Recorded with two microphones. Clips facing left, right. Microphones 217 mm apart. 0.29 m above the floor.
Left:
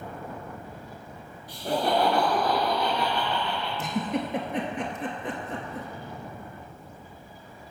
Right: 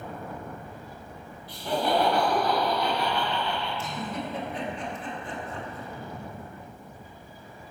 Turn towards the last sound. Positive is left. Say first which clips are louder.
# left 5 dB
turn(degrees=80)